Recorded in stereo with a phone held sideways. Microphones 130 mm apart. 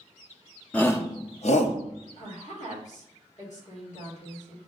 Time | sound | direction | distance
0.7 | a shout | 10° left (ahead or behind) | 0.6 m
2.2 | a woman speaking | 65° left (ahead or behind) | 1.8 m